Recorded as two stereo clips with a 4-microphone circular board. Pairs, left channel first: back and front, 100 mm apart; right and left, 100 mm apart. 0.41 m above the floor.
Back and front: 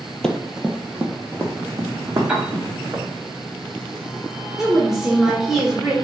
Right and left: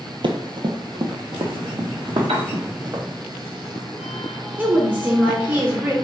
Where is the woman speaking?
80° left, 0.7 m.